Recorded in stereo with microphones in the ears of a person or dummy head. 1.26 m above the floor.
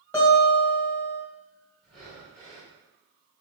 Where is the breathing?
Centre (ahead or behind), 1.9 m.